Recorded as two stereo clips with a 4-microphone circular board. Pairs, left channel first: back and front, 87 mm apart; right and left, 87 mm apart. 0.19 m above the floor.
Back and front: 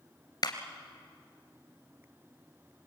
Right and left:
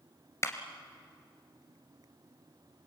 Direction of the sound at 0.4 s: 145° right.